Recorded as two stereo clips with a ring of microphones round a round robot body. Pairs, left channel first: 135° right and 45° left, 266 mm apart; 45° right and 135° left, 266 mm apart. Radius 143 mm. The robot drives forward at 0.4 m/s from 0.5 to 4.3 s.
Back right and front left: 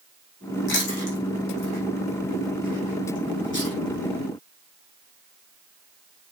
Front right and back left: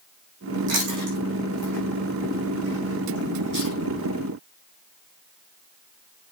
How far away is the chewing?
About 6 m.